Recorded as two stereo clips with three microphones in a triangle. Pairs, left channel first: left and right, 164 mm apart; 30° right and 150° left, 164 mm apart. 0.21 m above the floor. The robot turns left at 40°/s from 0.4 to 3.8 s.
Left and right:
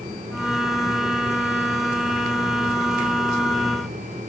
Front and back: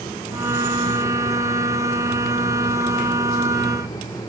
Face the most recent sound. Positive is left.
No sound to turn to.